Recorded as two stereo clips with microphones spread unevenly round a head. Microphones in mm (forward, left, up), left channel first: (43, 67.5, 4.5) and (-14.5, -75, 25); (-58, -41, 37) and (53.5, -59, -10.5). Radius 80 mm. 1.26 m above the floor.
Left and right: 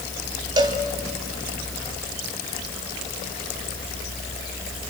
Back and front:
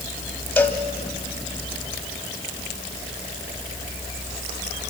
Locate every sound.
0.6 s a cowbell: 155° right, 1.4 m